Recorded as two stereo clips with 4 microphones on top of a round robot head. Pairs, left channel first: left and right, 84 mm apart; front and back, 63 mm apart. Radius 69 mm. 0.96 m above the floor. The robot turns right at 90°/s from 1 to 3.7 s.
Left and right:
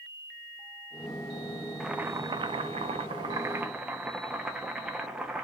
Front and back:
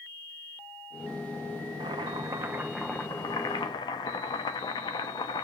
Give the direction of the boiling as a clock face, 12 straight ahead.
6 o'clock.